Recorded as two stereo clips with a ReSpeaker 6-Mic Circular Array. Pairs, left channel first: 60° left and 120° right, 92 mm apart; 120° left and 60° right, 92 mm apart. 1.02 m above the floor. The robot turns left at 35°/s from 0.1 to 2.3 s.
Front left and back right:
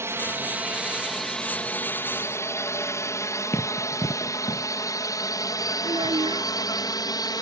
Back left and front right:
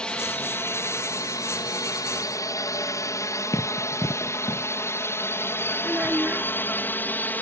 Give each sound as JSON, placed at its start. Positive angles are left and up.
{"t": 0.0, "sound": "a drone", "azimuth_deg": -165}
{"t": 3.5, "sound": "running footsteps", "azimuth_deg": 105}
{"t": 5.8, "sound": "a child speaking", "azimuth_deg": -135}